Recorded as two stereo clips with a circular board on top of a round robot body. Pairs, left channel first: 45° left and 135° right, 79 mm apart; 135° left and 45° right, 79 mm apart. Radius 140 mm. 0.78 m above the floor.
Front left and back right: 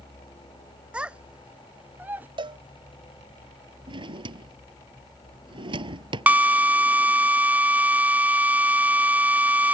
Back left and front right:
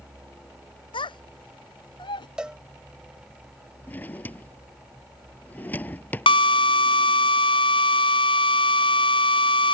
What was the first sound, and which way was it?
A child speaking, 145° left.